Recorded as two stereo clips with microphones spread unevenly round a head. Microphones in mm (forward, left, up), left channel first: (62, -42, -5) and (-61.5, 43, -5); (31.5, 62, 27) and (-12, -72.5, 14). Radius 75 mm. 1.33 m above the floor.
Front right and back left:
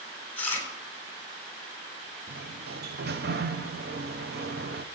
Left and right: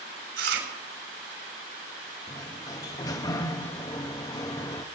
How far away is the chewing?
About 4 m.